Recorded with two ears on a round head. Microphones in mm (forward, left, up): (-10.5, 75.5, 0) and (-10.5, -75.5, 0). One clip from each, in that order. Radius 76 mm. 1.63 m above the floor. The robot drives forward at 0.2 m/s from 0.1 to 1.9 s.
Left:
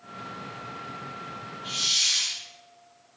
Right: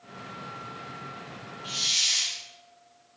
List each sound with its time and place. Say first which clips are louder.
1.6 s a hiss: left 1 dB; 20° right (ahead or behind), 7.5 m